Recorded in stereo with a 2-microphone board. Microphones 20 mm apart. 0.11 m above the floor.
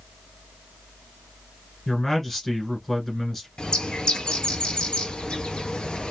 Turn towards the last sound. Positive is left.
turn(degrees=55)  # may be behind; listen again after turning